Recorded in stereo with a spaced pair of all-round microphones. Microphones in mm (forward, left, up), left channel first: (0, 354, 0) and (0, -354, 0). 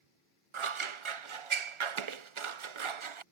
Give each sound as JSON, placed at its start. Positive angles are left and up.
{"t": 0.5, "sound": "scissors", "side_deg": -45}